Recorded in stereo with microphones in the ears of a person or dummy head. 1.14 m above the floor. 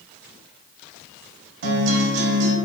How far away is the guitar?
About 0.6 m.